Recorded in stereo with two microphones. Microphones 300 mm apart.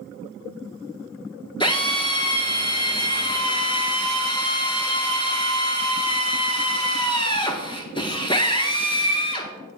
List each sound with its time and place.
1.6 s a drill: 15° left (ahead or behind), 0.9 m